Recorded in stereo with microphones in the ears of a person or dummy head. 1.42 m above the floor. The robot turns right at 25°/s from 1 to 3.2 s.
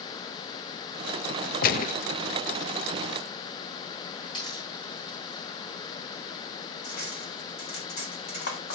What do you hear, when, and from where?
1.6 s a gunshot: 50° left (ahead or behind), 0.7 m; by 1.9 s 40° left (ahead or behind), 0.7 m
4.3 s a dropped coin: 25° left (ahead or behind), 8 m
6.8 s cutlery clinking: 60° left (ahead or behind), 4 m